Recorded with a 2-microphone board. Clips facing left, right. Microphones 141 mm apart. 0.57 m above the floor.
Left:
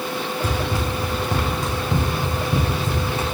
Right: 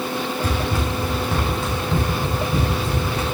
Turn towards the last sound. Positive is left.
turn(degrees=25)  # may be behind; listen again after turning